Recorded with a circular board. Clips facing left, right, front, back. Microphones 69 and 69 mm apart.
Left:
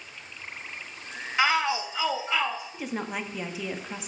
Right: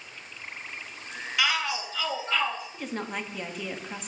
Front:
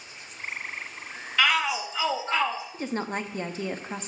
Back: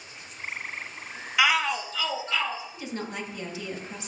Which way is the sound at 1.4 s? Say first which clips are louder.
Left 4 dB, even; 110° left.